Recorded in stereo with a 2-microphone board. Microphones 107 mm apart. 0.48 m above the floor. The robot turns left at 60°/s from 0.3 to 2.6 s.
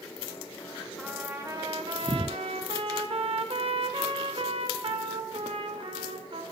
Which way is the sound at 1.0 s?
5° right.